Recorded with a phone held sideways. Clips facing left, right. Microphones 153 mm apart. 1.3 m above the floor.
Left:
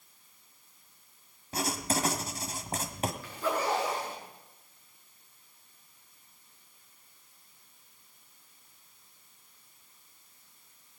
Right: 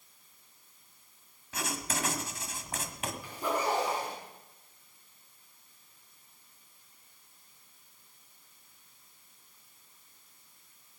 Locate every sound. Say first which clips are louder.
1.5 s writing: left 5 dB; 35° left (ahead or behind), 1.4 m
3.2 s a zipper: right 1 dB; 15° right (ahead or behind), 7.5 m